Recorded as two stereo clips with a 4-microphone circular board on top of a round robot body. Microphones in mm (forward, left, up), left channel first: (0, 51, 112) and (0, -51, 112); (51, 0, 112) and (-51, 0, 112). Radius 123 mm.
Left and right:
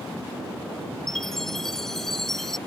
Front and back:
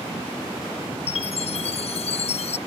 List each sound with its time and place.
1.1 s a chime: 5° left